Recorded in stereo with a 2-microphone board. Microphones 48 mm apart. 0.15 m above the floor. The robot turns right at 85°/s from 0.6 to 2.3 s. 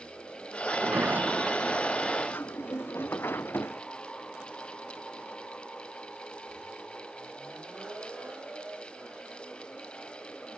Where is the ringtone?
No ringtone in this recording.